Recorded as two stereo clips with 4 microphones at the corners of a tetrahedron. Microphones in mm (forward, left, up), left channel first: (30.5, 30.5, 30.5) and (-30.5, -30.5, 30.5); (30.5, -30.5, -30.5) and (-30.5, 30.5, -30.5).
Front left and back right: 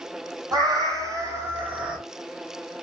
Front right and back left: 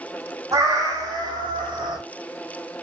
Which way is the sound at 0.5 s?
175° right.